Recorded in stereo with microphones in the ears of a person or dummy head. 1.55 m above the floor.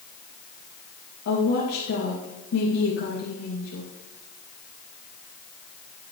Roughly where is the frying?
I don't hear frying.